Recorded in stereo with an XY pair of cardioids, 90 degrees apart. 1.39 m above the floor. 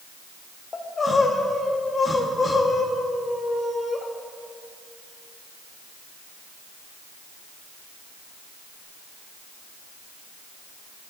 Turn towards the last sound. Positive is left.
turn(degrees=40)